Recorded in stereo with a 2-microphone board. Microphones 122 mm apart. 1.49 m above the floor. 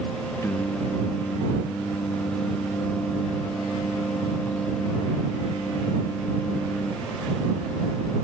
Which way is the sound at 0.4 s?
20° left (ahead or behind).